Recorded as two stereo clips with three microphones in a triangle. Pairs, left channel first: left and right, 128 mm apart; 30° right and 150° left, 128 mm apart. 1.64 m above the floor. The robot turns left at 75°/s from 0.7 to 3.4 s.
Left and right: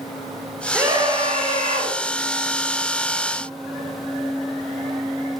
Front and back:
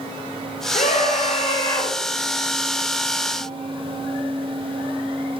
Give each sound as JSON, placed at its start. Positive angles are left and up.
{"t": 0.7, "sound": "a scream", "azimuth_deg": -10, "distance_m": 6.0}